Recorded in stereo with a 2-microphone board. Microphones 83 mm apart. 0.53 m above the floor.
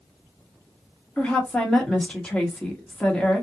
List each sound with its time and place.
1.2 s a woman speaking: 15° left (ahead or behind), 1.3 m